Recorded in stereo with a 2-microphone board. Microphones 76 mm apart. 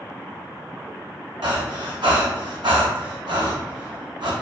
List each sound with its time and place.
1.4 s breathing: 85° right, 0.6 m